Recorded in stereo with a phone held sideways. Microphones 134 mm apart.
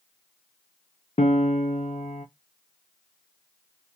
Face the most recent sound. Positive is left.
turn(degrees=55)  # may be behind; listen again after turning